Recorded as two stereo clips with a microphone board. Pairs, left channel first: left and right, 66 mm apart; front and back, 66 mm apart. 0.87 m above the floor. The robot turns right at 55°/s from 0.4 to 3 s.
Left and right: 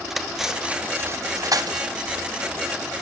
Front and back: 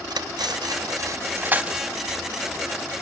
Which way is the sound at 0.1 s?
175° right.